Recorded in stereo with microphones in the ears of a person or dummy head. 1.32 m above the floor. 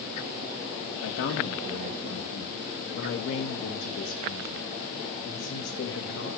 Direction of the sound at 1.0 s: 65° left (ahead or behind).